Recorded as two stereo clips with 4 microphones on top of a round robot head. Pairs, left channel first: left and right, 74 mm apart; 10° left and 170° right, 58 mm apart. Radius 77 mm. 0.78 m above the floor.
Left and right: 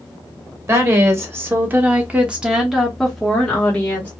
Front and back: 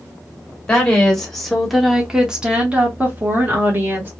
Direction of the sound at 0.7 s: 60° right.